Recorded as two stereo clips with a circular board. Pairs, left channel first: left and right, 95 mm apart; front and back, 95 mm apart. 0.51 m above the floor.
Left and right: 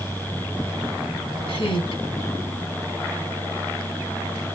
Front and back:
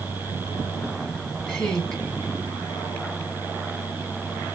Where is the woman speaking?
85° left, 4 m.